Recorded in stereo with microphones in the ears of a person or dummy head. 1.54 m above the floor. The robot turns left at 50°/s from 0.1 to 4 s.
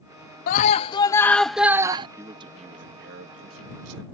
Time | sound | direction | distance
0.5 | a scream | 55° left | ?
2.2 | a man speaking | 15° right | ?